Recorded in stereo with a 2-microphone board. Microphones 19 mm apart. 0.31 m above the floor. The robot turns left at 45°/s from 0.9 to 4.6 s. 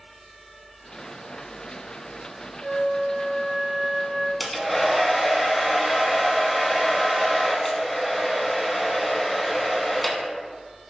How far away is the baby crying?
No baby crying in this recording.